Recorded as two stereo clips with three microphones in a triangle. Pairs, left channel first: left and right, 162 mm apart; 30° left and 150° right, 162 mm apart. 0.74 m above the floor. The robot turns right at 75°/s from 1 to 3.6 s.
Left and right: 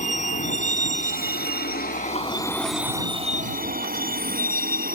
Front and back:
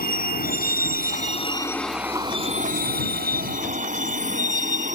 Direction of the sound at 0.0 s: 50° left.